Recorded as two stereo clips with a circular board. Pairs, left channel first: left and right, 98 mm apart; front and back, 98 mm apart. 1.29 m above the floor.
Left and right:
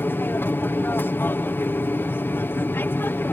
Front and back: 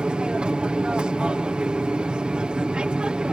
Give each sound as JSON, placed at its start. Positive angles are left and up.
{"t": 0.0, "sound": "an aircraft", "azimuth_deg": 115}